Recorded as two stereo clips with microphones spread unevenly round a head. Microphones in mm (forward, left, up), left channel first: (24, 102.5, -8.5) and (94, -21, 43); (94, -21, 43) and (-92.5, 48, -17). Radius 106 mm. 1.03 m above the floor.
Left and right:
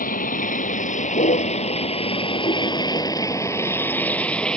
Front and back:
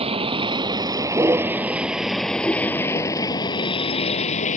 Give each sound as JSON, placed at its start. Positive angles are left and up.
{"t": 0.0, "sound": "a vehicle", "azimuth_deg": 95}